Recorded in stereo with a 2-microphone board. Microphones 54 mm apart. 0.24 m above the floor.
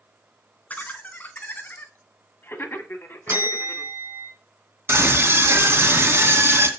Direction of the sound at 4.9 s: 50° right (ahead or behind).